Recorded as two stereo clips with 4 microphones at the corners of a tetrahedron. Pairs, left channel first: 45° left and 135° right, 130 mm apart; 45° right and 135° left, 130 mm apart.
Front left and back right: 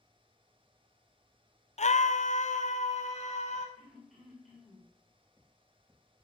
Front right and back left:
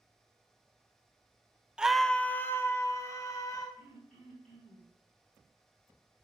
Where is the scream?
55° left, 0.6 m; by 3.7 s 20° left, 2.5 m.